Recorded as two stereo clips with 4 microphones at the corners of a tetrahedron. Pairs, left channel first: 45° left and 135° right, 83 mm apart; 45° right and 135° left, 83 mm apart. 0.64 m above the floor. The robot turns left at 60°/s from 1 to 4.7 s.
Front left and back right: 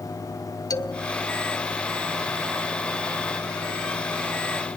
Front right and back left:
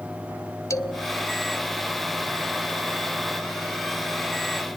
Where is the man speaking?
Straight ahead, 1.5 m; by 1.1 s 5° right, 1.5 m.